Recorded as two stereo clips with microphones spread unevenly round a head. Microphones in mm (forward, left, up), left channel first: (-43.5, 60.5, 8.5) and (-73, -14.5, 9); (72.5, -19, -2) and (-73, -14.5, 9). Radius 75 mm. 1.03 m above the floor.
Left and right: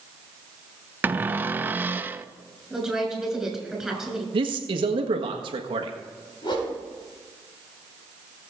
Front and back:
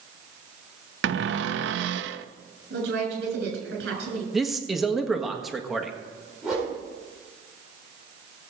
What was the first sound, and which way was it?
A cupboard door, straight behind.